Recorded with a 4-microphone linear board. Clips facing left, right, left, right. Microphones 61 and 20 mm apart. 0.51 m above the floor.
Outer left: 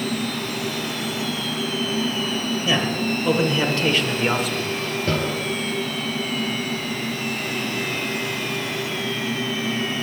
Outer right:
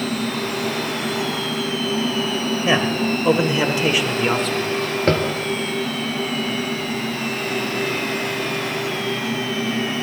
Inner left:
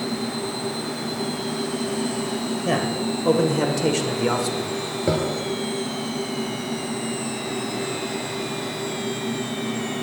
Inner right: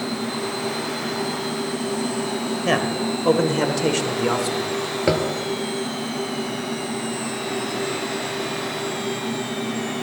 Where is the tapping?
60° right (ahead or behind), 1.5 m.